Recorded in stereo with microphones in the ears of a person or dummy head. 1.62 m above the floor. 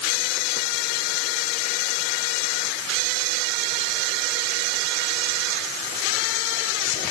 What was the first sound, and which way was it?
Only background noise.